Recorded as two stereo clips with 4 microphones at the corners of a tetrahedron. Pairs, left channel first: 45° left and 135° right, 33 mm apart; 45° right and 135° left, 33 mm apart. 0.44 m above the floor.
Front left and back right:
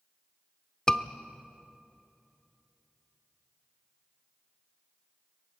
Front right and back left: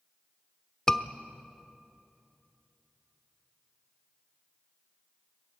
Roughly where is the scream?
Ahead.